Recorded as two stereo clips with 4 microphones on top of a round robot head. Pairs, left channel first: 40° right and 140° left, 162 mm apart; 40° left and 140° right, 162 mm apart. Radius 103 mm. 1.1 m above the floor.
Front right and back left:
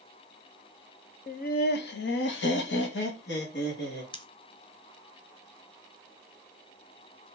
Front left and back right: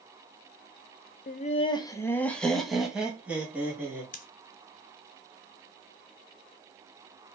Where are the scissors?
15° left, 0.6 m.